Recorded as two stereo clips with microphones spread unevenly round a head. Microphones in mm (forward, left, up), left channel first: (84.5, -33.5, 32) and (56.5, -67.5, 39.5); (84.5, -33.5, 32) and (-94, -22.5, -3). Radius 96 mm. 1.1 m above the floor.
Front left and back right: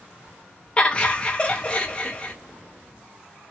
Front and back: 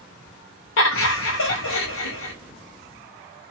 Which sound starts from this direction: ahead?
Laughter, at 0.8 s.